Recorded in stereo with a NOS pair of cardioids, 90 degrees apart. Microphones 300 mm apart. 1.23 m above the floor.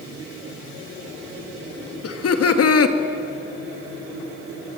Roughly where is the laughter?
Ahead left.